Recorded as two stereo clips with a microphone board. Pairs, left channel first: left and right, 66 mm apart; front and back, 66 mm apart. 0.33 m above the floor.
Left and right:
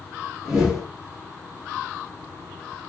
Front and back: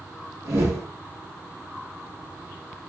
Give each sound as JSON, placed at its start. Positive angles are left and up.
{"t": 0.5, "sound": "a whoosh", "azimuth_deg": -165, "distance_m": 1.2}